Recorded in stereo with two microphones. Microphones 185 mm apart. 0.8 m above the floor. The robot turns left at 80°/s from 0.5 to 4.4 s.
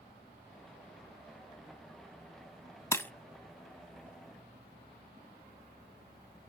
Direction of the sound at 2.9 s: 15° left (ahead or behind).